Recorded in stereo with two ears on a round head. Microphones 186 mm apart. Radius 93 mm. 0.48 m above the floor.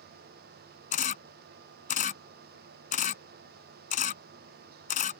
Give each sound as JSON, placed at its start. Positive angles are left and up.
{"t": 0.9, "sound": "a camera shutter", "side_deg": 40}